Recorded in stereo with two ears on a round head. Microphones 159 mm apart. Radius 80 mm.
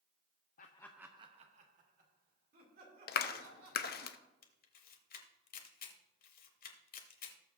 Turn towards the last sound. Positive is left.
turn(degrees=50)  # may be behind; listen again after turning